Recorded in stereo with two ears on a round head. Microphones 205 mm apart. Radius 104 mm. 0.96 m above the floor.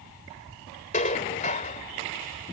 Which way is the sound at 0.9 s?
30° left (ahead or behind).